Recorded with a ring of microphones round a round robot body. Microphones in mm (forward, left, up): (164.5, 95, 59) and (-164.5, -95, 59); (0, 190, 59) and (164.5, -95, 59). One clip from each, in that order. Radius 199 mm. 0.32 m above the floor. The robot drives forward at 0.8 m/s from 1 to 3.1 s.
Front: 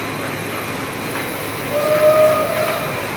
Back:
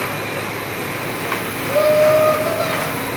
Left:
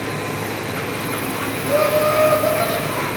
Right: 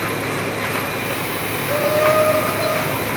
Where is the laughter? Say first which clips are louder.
Even, even; 160° left, 5.5 m.